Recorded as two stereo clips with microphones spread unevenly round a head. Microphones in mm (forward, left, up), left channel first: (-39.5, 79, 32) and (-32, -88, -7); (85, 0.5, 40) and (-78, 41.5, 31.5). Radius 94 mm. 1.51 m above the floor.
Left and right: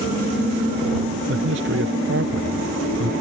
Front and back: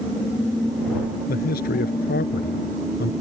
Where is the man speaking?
55° right.